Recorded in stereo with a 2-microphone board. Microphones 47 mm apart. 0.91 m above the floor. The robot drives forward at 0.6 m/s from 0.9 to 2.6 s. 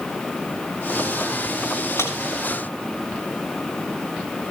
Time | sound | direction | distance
2.0 | a man speaking | 75° left (ahead or behind) | 6.5 m